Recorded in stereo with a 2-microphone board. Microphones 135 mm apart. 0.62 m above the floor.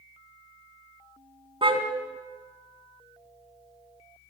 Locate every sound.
1.6 s a car horn: 40° right (ahead or behind), 3 m